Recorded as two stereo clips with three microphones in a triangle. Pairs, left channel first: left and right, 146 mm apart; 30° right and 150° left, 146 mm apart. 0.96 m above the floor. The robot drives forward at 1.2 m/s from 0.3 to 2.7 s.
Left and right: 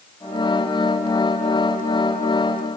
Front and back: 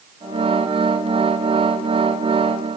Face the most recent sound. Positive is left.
No sound to turn to.